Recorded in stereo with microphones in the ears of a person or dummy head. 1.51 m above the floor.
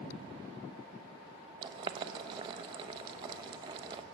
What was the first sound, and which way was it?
Boiling, 25° right (ahead or behind).